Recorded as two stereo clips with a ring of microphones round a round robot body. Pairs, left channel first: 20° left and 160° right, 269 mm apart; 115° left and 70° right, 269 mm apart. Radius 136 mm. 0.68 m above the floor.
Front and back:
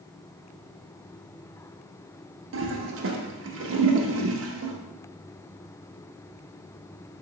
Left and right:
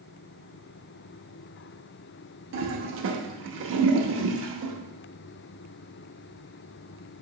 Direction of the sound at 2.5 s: 110° right.